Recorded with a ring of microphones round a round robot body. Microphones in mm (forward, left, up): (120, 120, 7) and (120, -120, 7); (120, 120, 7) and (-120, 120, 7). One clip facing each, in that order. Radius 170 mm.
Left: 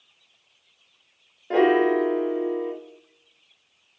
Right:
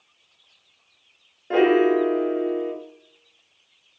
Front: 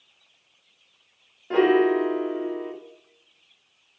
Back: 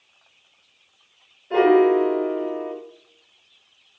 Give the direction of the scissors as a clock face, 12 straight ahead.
No scissors in this recording.